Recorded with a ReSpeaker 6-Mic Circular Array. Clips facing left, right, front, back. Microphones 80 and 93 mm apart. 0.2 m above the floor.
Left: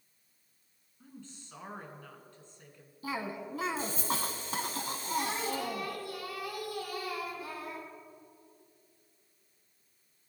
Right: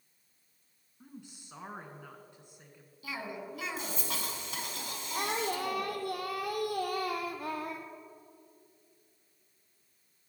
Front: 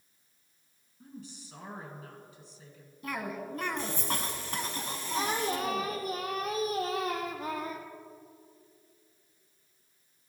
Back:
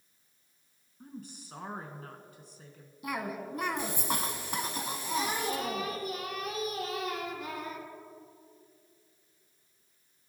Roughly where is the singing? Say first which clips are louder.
Right 1 dB, front 2 dB; ahead right.